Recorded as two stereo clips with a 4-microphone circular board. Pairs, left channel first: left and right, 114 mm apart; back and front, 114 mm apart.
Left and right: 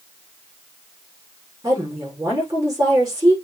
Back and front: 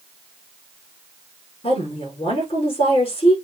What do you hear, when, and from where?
1.6 s a woman speaking: 150° right, 7.5 m